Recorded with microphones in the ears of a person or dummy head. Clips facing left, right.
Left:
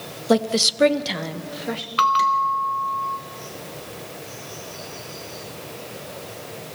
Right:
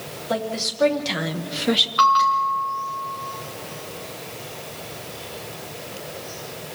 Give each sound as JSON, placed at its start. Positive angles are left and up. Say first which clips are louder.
{"t": 0.3, "sound": "a woman speaking", "louder": "left 7 dB", "side_deg": 60, "distance_m": 1.2}
{"t": 2.0, "sound": "a bell", "louder": "right 1 dB", "side_deg": 35, "distance_m": 0.9}